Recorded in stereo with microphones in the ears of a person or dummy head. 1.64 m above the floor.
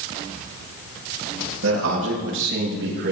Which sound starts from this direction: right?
A man speaking, at 1.6 s.